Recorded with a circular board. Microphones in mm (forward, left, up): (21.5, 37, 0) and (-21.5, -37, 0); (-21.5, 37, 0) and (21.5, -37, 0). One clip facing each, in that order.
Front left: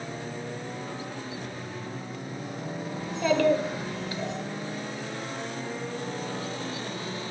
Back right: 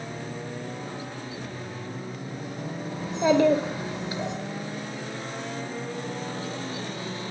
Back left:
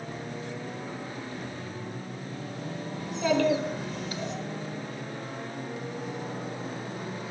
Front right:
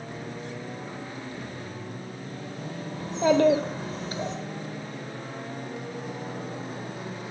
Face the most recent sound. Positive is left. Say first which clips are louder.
# back right 3 dB, front right 5 dB
turn(degrees=-70)